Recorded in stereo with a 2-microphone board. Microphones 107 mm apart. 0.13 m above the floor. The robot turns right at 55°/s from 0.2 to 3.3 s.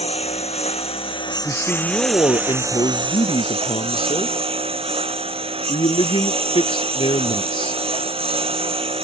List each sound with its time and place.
0.0 s a lawn mower: 75° left; by 9.1 s 115° right
1.4 s a man speaking: straight ahead; by 7.8 s 100° left